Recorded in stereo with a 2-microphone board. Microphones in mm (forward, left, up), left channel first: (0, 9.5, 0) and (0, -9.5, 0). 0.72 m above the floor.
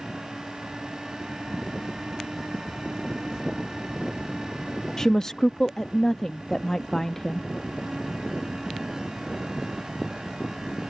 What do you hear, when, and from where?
5.0 s a woman speaking: 20° left (ahead or behind)